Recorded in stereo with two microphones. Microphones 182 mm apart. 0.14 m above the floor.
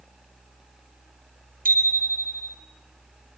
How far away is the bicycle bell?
About 3 m.